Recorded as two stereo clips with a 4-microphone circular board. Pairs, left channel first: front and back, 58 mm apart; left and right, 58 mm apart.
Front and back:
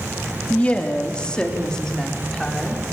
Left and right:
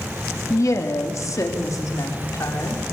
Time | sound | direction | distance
0.5 | a woman speaking | 65° left | 3 m